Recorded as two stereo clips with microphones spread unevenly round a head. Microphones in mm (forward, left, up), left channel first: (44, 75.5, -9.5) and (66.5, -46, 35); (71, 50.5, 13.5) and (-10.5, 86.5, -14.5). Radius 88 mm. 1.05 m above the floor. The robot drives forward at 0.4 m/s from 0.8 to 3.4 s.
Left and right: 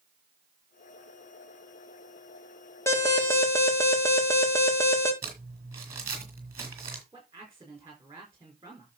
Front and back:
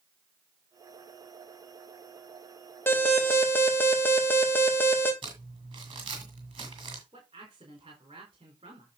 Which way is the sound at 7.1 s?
160° right.